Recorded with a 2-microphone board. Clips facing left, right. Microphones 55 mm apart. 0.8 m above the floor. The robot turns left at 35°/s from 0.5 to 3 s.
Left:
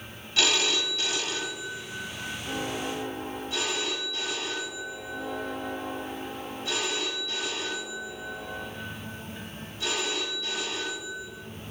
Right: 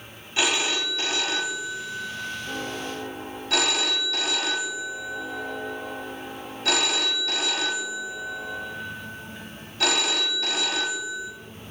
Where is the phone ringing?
20° right, 0.6 m; by 11.3 s 110° right, 0.6 m.